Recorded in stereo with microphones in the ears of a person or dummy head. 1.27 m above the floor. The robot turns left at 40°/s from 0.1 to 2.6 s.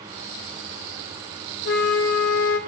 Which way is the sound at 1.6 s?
115° left.